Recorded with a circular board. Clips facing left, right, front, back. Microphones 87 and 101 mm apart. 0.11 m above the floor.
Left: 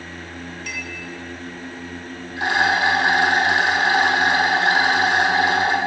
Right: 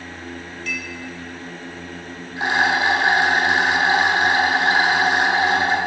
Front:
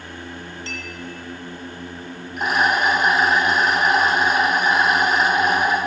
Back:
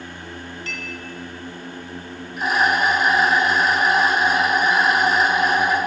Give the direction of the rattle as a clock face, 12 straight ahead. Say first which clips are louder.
Even, even; 1 o'clock.